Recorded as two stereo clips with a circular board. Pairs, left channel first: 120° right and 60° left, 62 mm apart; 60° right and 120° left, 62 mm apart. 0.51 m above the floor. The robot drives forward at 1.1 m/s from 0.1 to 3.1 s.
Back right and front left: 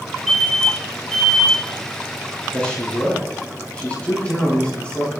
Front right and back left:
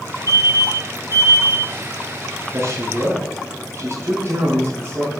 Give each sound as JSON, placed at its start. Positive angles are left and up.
{"t": 0.3, "sound": "an alarm", "azimuth_deg": -30, "distance_m": 6.0}
{"t": 2.5, "sound": "a man speaking", "azimuth_deg": 165, "distance_m": 5.5}